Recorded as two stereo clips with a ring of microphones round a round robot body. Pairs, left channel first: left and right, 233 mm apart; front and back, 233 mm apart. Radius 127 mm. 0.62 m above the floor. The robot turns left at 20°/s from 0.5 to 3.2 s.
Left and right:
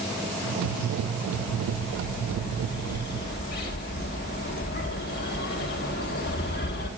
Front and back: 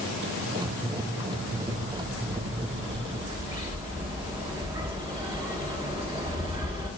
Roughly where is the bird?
Behind left.